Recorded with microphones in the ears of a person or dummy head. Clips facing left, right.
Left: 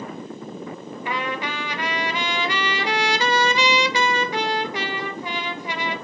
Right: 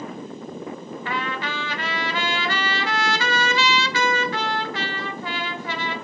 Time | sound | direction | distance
1.1 | a trumpet | 15° left (ahead or behind) | 0.8 m